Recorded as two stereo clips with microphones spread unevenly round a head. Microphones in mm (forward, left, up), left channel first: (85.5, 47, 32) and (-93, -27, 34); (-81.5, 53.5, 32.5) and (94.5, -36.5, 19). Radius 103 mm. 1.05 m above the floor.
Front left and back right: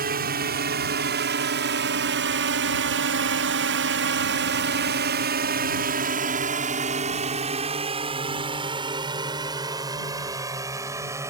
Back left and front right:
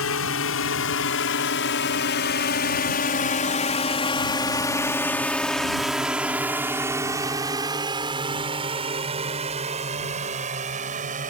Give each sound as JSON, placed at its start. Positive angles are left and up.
{"t": 0.0, "sound": "a drone", "azimuth_deg": 160}